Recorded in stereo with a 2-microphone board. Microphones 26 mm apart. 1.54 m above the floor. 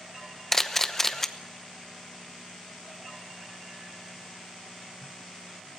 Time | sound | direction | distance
0.5 | a camera shutter | 15° left (ahead or behind) | 0.9 m